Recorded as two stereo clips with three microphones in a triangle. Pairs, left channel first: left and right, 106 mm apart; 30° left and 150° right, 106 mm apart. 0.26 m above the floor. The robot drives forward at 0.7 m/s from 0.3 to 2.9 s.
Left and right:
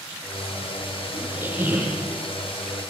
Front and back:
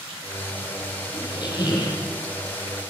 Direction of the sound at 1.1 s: 15° right.